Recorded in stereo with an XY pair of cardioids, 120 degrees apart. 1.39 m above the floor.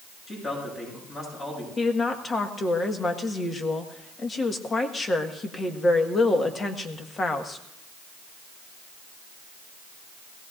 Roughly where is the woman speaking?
Ahead left.